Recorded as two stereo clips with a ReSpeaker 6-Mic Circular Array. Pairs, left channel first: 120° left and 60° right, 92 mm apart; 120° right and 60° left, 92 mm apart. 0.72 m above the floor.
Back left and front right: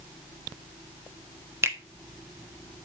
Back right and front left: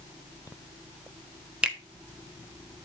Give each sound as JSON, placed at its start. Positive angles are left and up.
{"t": 1.6, "sound": "a finger snap", "azimuth_deg": -15, "distance_m": 1.2}